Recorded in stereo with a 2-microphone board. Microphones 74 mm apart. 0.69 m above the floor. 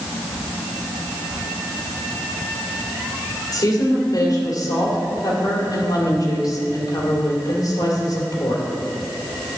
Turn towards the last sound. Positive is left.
turn(degrees=55)  # may be behind; listen again after turning